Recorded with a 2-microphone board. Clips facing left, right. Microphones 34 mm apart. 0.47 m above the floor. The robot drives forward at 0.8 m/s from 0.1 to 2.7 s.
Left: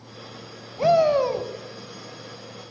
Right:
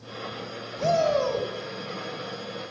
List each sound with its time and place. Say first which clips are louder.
0.8 s a shout: left 5 dB; 25° left (ahead or behind), 2.5 m; by 1.5 s 20° left (ahead or behind), 3 m